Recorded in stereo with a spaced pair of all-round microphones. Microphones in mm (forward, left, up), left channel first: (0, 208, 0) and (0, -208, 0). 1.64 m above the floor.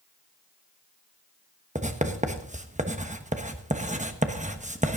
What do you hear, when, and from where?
1.8 s writing: 15° right (ahead or behind), 1.0 m